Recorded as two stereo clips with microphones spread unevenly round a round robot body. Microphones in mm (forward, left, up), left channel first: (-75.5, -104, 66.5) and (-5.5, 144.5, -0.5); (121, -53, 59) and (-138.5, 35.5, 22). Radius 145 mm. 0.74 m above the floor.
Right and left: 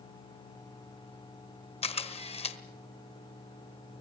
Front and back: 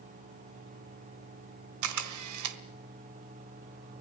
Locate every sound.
1.8 s a camera shutter: 175° right, 1.5 m